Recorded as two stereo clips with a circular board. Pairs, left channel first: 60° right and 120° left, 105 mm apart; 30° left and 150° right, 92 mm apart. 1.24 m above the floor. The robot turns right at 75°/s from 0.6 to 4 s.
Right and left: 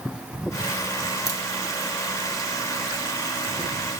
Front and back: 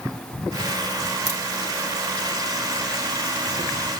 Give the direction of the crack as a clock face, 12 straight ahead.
6 o'clock.